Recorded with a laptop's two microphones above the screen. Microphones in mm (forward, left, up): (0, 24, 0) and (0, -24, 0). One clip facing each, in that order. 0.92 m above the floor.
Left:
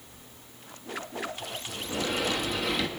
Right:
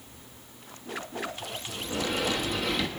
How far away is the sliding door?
About 1.6 m.